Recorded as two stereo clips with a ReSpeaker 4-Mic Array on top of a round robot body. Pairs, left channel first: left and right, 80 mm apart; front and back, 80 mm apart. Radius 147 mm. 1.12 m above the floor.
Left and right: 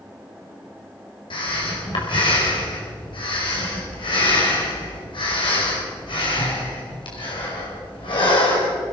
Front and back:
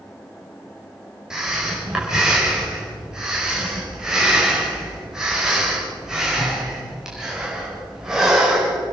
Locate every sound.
1.3 s breathing: 95° left, 5.5 m